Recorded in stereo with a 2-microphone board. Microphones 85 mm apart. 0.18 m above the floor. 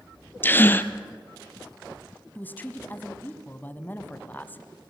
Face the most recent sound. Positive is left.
turn(degrees=20)  # may be behind; listen again after turning